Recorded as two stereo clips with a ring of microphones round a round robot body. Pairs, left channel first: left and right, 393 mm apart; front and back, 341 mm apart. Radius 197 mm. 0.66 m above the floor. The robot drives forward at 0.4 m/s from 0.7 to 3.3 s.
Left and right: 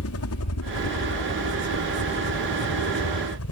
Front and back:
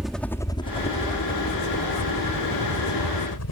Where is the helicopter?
90° left; by 3.5 s 35° left.